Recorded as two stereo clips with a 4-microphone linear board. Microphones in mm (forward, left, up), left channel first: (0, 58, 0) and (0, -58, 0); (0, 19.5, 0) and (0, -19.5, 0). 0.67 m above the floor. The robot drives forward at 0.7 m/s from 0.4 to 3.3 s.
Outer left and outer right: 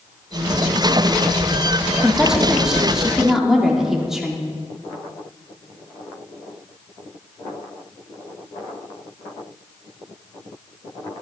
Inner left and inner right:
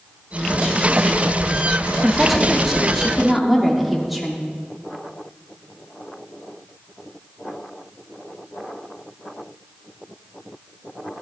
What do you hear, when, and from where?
2.0 s a woman speaking: 5° right (ahead or behind), 1.2 m